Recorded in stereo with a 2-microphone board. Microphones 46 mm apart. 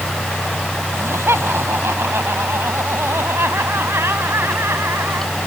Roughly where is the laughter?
Right.